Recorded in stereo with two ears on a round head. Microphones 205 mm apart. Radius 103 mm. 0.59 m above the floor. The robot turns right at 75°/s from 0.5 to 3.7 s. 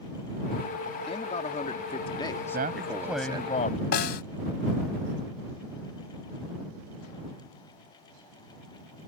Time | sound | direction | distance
1.1 | a man speaking | 50° left | ?
2.5 | a man speaking | 50° right | ?
3.9 | a snare drum | 45° left (ahead or behind) | ?